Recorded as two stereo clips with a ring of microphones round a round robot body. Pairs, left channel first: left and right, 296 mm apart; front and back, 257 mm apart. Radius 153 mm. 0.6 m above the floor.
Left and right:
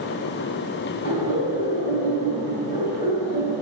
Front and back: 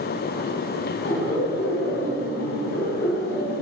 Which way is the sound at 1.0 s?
30° left.